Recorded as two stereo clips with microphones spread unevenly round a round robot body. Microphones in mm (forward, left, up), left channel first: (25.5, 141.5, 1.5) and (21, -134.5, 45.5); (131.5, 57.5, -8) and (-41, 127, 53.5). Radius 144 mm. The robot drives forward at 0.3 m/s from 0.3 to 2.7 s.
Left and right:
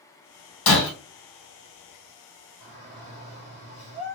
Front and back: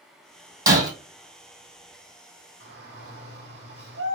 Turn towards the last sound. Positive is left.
turn(degrees=135)